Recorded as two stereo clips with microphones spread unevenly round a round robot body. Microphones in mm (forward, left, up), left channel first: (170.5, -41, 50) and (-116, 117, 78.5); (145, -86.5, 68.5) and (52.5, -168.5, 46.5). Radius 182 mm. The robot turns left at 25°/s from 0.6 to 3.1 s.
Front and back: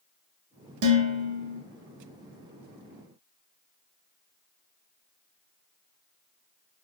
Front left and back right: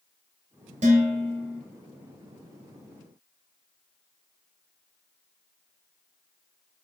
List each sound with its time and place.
0.8 s dishes clattering: 170° right, 0.6 m; by 1.6 s 170° left, 0.6 m